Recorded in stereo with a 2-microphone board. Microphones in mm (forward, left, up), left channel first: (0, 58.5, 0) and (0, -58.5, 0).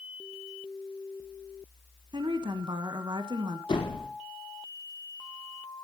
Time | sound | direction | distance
2.1 | a woman speaking | 45° right (ahead or behind) | 1.5 m
3.7 | a door slam | 45° left (ahead or behind) | 5 m